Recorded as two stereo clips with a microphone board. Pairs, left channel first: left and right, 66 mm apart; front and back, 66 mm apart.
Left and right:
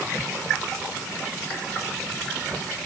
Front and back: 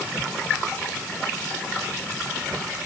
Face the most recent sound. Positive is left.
No sound to turn to.